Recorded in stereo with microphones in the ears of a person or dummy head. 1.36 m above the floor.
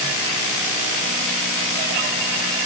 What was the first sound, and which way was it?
Only background noise.